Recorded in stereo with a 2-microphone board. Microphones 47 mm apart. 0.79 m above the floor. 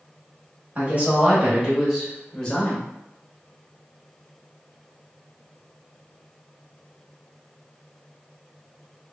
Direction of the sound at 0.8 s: 35° right (ahead or behind).